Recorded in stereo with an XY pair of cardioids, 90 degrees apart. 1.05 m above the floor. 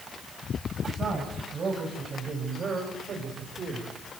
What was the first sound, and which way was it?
A man speaking, 50° right.